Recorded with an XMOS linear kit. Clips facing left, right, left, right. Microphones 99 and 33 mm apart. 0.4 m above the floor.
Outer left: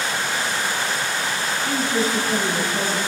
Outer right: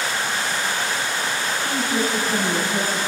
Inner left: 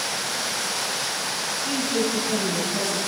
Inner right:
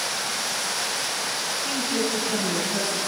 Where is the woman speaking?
35° right (ahead or behind), 4.5 m; by 3.0 s 40° right (ahead or behind), 5 m.